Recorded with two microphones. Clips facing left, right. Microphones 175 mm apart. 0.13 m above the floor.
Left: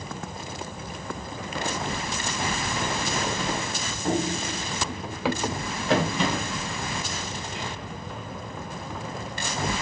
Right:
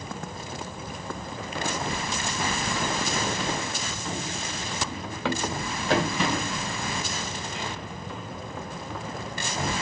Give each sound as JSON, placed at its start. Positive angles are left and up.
{"t": 4.0, "sound": "running footsteps", "side_deg": 45, "distance_m": 0.7}